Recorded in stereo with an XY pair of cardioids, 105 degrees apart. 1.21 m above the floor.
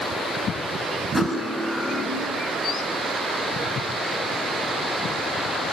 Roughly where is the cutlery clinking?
Ahead.